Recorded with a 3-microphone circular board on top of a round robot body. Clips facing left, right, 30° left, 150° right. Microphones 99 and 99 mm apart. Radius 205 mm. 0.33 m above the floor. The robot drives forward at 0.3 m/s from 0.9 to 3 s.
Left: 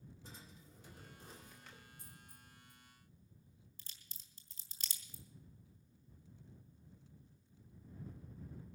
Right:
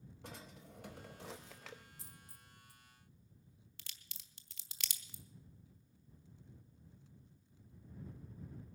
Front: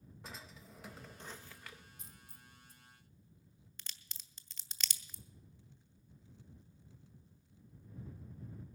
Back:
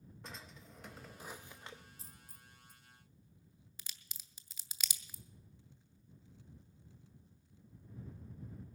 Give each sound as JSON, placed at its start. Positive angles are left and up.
{"t": 0.2, "sound": "a drawer", "azimuth_deg": -60, "distance_m": 0.6}
{"t": 2.0, "sound": "a dropped coin", "azimuth_deg": -90, "distance_m": 0.7}
{"t": 3.8, "sound": "a crack", "azimuth_deg": -65, "distance_m": 0.7}